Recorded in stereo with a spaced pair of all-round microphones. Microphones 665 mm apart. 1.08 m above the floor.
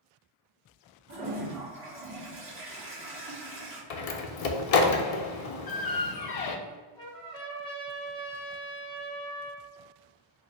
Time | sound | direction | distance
1.1 | a toilet flushing | 20° right (ahead or behind) | 1.8 m
3.9 | a door slam | 65° left (ahead or behind) | 0.6 m
6.7 | a trumpet | 5° left (ahead or behind) | 1.4 m